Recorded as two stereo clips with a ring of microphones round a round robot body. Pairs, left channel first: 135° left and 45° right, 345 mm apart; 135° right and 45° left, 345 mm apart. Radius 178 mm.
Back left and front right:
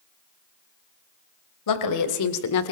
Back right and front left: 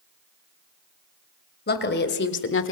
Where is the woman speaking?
165° left, 3 m; by 2.7 s 175° left, 1.5 m.